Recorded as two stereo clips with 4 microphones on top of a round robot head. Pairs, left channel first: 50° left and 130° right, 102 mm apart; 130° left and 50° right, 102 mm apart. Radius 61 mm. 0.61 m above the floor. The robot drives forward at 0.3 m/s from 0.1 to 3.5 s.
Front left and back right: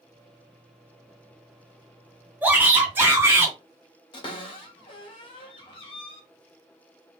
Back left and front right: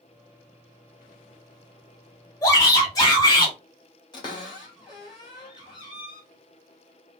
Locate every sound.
2.4 s a shout: 165° left, 1.2 m; by 3.5 s 170° left, 1.5 m
4.1 s a cupboard door: 85° left, 1.7 m